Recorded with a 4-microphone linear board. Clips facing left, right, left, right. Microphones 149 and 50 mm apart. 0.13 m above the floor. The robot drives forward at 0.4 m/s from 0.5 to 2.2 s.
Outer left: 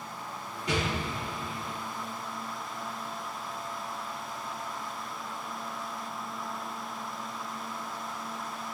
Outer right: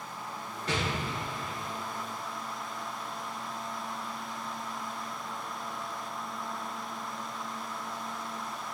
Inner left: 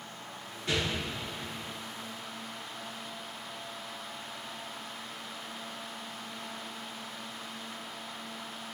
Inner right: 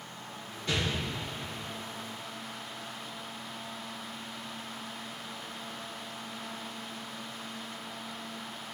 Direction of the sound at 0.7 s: 15° left (ahead or behind).